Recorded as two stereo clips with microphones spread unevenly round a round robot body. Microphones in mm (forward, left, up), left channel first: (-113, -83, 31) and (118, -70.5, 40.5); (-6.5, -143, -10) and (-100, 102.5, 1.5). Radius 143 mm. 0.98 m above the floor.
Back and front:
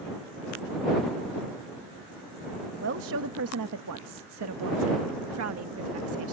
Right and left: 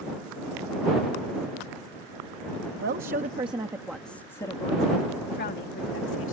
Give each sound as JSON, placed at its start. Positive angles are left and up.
{"t": 2.8, "sound": "a woman speaking", "azimuth_deg": 55}